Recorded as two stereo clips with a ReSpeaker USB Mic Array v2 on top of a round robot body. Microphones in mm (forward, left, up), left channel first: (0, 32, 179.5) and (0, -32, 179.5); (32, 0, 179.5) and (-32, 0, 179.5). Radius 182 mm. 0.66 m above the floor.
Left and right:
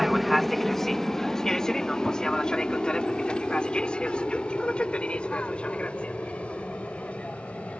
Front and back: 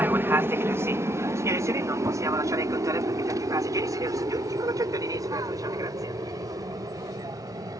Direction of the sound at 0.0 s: Straight behind.